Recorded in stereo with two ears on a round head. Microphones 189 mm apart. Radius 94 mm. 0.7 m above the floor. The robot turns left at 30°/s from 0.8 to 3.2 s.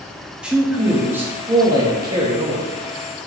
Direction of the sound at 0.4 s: 5° right (ahead or behind).